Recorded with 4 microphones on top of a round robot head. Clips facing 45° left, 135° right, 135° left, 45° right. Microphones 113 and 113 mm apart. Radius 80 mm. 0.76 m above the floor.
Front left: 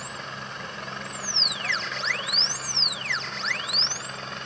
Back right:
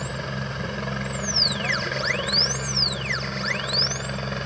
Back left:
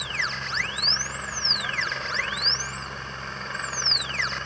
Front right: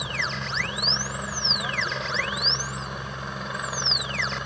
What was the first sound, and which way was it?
A helicopter, 125° right.